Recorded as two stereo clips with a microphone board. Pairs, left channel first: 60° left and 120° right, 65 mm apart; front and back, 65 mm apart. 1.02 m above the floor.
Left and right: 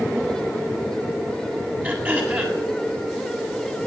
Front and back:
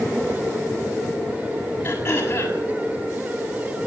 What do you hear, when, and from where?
1.8 s throat clearing: 55° right, 7 m